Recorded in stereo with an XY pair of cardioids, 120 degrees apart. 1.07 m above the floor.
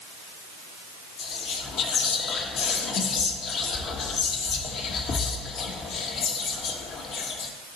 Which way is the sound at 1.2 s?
60° left.